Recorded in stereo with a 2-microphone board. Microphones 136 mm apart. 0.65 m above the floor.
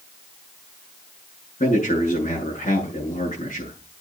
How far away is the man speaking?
About 8.5 m.